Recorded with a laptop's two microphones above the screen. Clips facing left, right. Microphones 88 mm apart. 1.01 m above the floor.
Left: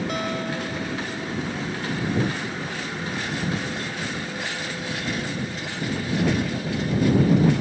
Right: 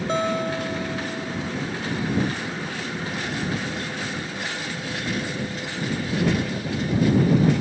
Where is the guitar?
30° right (ahead or behind).